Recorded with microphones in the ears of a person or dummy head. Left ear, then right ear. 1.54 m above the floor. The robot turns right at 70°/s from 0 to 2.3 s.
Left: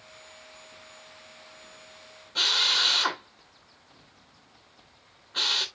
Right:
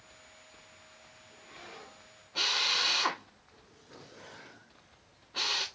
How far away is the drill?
About 2 m.